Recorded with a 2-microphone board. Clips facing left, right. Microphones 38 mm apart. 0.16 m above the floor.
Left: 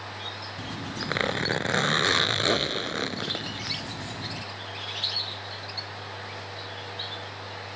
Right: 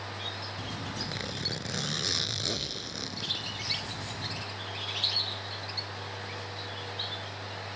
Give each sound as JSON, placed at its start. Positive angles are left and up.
{"t": 0.6, "sound": "a zipper", "side_deg": 60}